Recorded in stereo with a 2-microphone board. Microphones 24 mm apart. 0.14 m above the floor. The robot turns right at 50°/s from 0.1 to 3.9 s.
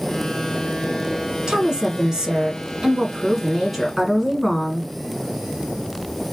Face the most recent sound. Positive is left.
turn(degrees=5)  # may be behind; listen again after turning